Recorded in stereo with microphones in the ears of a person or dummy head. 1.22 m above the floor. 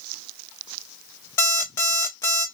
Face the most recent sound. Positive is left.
turn(degrees=10)  # may be behind; listen again after turning